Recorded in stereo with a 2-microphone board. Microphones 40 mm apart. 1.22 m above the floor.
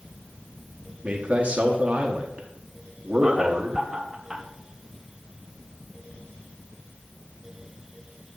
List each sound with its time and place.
1.0 s a man speaking: 40° right (ahead or behind), 0.9 m
3.2 s laughter: 15° right (ahead or behind), 0.7 m